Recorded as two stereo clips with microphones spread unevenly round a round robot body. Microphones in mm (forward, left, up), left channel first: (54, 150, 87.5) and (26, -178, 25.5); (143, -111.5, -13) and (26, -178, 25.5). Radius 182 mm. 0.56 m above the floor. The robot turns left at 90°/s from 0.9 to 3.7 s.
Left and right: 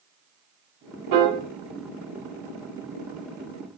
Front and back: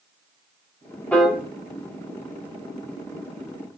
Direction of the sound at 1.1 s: 55° right.